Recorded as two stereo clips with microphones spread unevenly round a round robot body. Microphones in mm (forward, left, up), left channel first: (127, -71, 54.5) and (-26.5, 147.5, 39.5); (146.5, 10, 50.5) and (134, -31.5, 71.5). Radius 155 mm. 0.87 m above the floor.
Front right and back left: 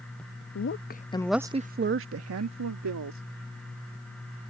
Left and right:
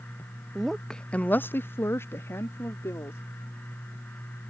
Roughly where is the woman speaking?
Ahead.